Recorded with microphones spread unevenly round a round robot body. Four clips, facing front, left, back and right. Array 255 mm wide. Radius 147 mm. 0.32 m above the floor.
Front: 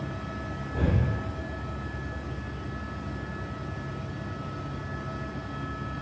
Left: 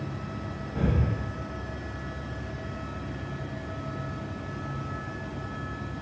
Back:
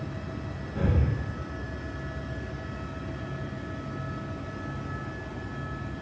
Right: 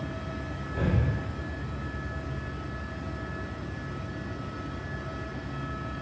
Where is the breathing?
5° left, 5.5 m.